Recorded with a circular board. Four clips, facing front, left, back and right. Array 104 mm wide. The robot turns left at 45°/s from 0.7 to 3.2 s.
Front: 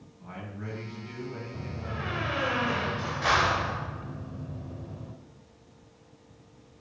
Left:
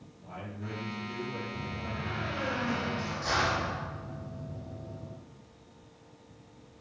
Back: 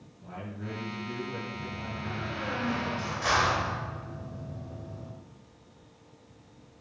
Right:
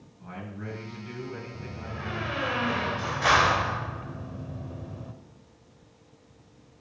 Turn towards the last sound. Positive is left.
turn(degrees=-75)